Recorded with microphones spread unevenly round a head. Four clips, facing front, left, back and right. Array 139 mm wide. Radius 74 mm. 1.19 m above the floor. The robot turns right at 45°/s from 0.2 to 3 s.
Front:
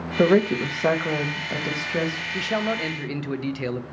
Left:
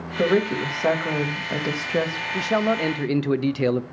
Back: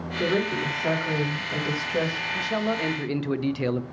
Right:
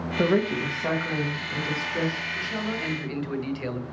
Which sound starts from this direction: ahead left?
A man speaking, at 2.3 s.